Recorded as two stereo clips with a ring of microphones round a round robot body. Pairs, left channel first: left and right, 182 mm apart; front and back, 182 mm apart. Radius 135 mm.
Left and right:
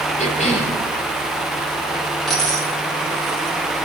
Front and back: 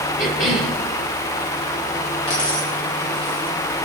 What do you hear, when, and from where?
0.2 s a cough: 40° left, 4 m
2.3 s a dropped coin: straight ahead, 3.5 m